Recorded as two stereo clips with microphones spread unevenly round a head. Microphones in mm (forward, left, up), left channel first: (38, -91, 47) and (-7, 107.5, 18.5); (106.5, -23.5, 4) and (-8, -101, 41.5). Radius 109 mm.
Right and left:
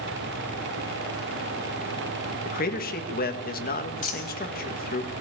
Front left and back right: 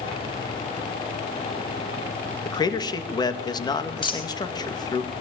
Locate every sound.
2.5 s a man speaking: 30° right, 2.5 m
4.0 s a dropped coin: 25° right, 4 m